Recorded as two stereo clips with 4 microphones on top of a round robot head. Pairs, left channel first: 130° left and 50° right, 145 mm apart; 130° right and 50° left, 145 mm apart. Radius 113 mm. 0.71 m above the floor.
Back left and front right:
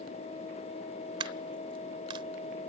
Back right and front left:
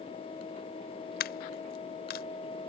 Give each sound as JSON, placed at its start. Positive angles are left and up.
{"t": 1.2, "sound": "a dropped coin", "azimuth_deg": -110}